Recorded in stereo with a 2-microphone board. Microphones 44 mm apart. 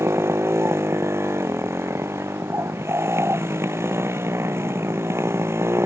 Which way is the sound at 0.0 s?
85° right.